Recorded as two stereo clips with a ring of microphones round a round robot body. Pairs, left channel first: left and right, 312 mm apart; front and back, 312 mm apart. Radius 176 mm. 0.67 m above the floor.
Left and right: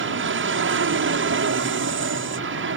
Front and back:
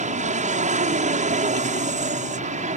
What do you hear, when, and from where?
0.0 s an aircraft: 120° right